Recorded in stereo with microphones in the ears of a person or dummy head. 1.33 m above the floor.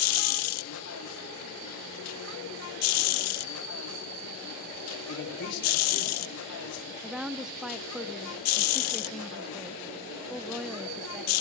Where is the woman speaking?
5° right (ahead or behind), 0.8 m.